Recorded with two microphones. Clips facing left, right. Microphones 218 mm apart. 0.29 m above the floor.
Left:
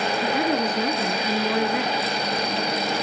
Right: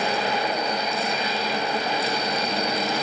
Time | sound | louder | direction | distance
0.2 | a woman speaking | left 4 dB | 75° left (ahead or behind) | 3.5 m